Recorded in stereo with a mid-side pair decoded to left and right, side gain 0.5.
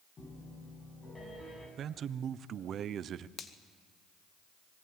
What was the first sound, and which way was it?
A piano, 35° left.